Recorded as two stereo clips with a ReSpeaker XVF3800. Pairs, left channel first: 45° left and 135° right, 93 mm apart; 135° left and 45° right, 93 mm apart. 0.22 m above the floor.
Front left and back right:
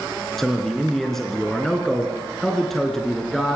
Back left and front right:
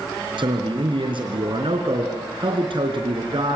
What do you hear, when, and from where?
0.4 s a man speaking: 40° right, 3.5 m